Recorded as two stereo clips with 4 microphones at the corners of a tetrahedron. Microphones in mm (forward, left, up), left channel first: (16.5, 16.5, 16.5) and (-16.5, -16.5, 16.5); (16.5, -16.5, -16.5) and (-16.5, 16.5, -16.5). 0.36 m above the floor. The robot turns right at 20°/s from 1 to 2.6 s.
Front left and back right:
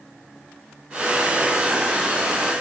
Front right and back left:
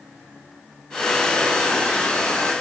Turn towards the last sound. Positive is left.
No sound to turn to.